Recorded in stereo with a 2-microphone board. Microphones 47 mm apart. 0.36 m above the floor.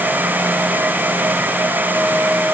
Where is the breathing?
No breathing in this recording.